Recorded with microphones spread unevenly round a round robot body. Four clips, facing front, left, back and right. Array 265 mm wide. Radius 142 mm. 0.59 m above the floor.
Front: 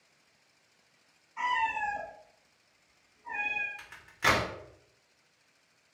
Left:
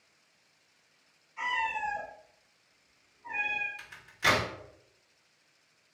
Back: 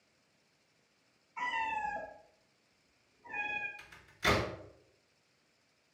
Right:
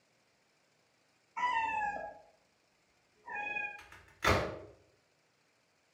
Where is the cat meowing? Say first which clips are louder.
Even, front 5 dB; 95° right, 0.6 m; by 3.7 s 150° left, 1.2 m.